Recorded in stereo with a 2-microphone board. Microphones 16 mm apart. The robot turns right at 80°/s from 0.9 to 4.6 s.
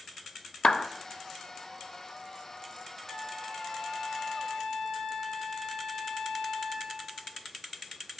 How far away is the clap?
About 0.6 m.